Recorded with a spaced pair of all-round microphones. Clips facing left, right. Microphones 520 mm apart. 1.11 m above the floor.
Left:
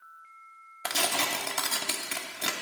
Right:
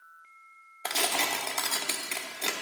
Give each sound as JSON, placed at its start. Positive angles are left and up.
{"t": 0.8, "sound": "tearing paper", "side_deg": 35, "distance_m": 0.8}